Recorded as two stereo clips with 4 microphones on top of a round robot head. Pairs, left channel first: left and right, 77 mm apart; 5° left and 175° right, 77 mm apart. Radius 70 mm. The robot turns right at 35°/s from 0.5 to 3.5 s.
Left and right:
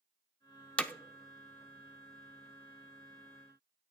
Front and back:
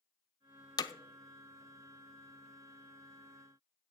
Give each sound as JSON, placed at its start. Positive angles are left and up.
{"t": 0.8, "sound": "hammering", "azimuth_deg": 20, "distance_m": 0.7}